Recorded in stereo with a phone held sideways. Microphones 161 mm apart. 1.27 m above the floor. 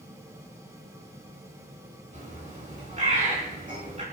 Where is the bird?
50° right (ahead or behind), 4.5 m.